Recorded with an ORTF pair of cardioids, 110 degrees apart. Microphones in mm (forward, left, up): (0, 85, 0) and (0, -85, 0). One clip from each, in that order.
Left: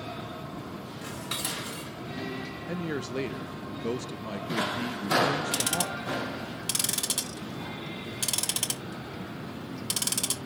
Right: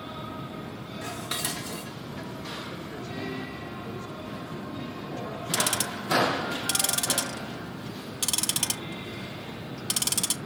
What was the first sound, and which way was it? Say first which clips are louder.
Dishes clattering: right 2 dB; 10° right.